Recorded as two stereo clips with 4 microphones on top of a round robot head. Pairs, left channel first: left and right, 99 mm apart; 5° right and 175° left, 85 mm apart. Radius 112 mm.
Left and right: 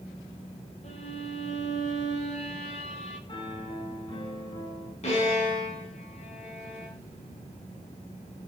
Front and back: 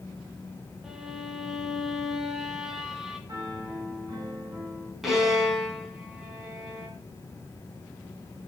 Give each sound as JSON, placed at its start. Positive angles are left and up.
{"t": 0.8, "sound": "a violin", "azimuth_deg": 90, "distance_m": 2.5}
{"t": 3.3, "sound": "a piano", "azimuth_deg": 130, "distance_m": 7.5}
{"t": 5.0, "sound": "a violin", "azimuth_deg": 85, "distance_m": 5.0}